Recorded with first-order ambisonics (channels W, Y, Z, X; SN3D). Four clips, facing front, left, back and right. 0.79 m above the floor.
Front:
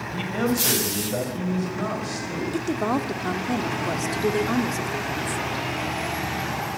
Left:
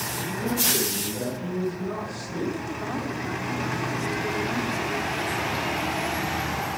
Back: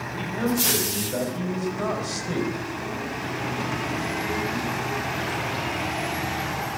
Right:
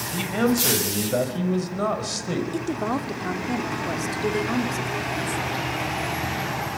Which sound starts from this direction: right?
A man speaking, at 0.1 s.